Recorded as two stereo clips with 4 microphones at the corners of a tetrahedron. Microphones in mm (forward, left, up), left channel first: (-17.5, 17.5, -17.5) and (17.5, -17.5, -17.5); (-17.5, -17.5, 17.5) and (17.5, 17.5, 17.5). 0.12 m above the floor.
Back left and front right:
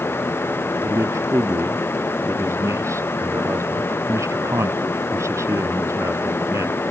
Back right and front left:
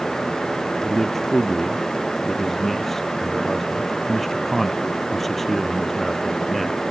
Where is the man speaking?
45° right.